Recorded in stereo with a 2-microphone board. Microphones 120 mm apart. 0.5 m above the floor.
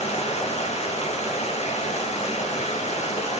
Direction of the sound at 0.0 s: 65° left (ahead or behind).